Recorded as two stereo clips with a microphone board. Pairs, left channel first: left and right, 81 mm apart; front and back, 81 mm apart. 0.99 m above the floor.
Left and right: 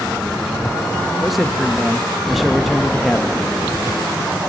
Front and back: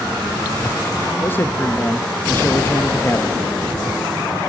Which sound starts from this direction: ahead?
A man speaking, at 1.2 s.